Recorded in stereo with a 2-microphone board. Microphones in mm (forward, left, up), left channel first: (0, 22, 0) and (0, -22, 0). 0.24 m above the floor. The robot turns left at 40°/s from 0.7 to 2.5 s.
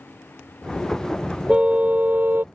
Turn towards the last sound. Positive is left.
turn(degrees=-65)